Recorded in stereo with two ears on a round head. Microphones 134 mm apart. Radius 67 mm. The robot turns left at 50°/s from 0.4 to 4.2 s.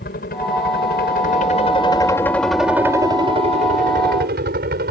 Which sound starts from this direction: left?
A helicopter, at 0.0 s.